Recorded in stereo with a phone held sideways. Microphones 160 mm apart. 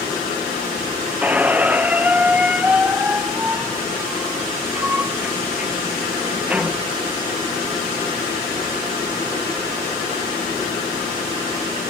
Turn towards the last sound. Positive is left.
turn(degrees=-10)  # may be behind; listen again after turning